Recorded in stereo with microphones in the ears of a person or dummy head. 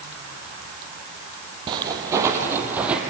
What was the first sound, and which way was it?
Footsteps, 25° right (ahead or behind).